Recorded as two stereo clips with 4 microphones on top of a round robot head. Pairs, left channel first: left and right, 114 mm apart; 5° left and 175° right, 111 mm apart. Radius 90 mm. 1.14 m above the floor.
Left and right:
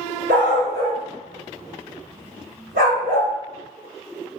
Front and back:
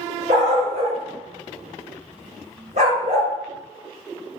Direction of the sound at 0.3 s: 125° right.